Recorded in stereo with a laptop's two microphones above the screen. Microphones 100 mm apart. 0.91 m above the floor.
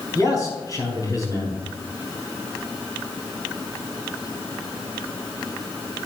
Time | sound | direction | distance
0.1 | a man speaking | 40° left (ahead or behind) | 4.5 m